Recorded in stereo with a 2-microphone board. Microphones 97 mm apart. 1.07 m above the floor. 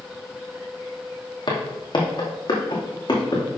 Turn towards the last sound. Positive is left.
turn(degrees=50)  # may be behind; listen again after turning